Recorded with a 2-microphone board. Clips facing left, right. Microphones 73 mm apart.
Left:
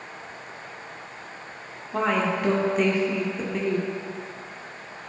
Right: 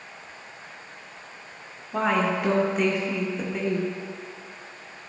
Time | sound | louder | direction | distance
1.9 | a woman speaking | even | centre (ahead or behind) | 0.9 m